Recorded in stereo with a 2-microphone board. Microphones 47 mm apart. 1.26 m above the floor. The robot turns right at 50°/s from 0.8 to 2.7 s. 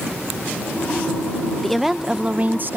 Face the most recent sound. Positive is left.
turn(degrees=-135)